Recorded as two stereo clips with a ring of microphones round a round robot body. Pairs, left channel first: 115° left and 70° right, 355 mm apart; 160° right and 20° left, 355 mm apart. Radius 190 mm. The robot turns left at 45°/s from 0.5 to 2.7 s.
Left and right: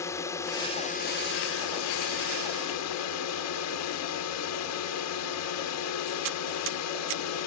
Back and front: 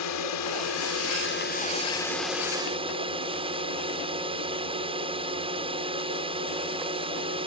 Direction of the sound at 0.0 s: 170° right.